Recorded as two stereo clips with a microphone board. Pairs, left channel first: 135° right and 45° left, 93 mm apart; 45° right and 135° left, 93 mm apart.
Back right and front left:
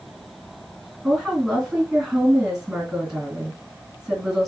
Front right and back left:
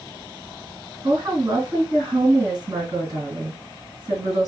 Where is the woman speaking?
125° left, 2 m.